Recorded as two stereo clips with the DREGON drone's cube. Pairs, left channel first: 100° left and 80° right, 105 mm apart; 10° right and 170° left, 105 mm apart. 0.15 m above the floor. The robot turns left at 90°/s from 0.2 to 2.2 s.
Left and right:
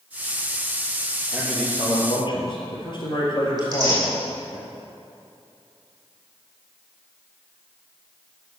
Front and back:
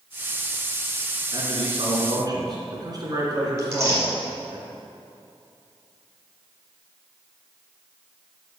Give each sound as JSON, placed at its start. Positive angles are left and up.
{"t": 1.3, "sound": "a man speaking", "azimuth_deg": -155, "distance_m": 3.0}
{"t": 3.6, "sound": "tearing paper", "azimuth_deg": -125, "distance_m": 4.5}